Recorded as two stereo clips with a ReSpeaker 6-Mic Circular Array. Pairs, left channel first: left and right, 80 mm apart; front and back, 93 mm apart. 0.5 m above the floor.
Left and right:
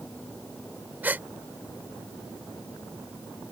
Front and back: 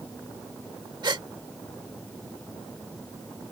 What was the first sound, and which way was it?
A gasp, 155° right.